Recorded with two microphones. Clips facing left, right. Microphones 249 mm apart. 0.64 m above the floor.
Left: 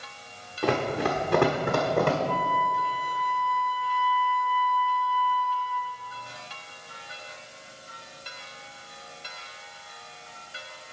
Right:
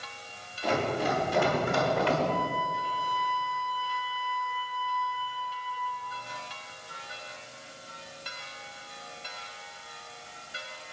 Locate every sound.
0.6 s running footsteps: 70° left (ahead or behind), 2 m; by 2.2 s 50° left (ahead or behind), 1.5 m
2.3 s a flute: 40° left (ahead or behind), 2.5 m